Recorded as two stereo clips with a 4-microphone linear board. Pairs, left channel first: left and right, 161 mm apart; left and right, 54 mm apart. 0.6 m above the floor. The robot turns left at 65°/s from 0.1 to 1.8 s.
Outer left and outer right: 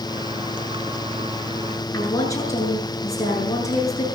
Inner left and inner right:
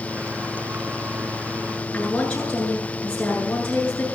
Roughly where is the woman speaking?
Centre.